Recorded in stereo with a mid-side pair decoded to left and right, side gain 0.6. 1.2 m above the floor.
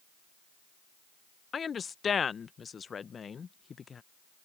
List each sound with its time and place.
1.5 s a woman speaking: 30° left